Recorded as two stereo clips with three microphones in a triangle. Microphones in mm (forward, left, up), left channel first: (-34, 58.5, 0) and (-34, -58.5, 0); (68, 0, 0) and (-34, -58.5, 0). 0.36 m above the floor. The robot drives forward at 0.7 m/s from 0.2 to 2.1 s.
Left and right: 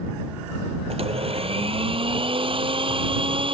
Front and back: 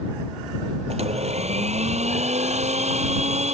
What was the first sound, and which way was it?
A blender, 125° right.